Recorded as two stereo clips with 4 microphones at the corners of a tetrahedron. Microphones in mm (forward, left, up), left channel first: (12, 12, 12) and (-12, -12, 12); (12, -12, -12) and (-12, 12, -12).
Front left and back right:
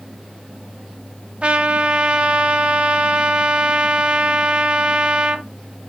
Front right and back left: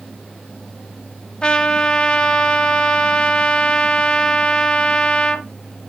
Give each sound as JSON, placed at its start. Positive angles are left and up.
{"t": 1.4, "sound": "a trumpet", "azimuth_deg": -95, "distance_m": 1.1}